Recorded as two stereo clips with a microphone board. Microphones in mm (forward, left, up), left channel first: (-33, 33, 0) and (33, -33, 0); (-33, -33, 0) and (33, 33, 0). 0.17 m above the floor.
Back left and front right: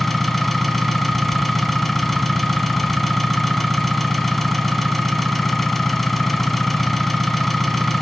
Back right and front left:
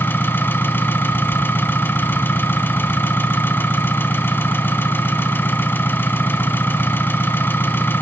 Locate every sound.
0.0 s an engine running: 140° right, 1.1 m